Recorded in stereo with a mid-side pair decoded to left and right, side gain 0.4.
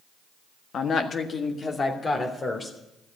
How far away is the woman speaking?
About 1.4 m.